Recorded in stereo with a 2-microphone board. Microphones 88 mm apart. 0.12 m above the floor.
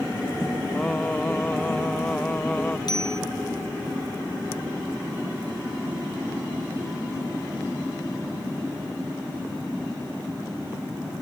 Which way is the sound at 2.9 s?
55° left (ahead or behind).